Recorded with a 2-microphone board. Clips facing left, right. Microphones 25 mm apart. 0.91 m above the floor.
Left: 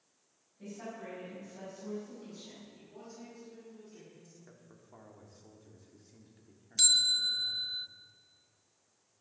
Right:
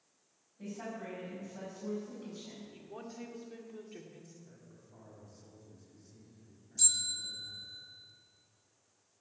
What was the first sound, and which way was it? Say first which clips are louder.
A woman speaking: right 2 dB; 15° right (ahead or behind).